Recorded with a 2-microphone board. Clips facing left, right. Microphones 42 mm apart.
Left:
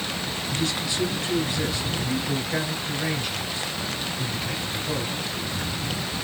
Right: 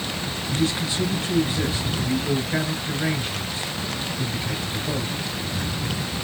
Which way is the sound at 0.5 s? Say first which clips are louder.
Right 4 dB; 25° right (ahead or behind).